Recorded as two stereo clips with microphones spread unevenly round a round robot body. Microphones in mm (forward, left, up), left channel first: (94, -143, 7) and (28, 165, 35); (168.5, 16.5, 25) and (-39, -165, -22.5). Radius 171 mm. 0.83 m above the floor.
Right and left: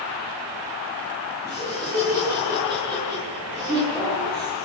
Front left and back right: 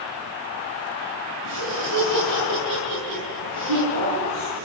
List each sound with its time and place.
1.4 s laughter: 175° right, 8.5 m